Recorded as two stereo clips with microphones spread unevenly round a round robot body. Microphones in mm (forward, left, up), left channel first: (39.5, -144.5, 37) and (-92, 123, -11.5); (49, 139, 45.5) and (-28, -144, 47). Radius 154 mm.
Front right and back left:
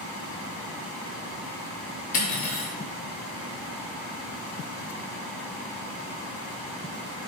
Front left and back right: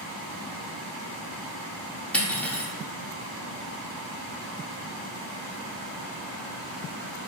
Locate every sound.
2.1 s cutlery clinking: 5° right, 0.7 m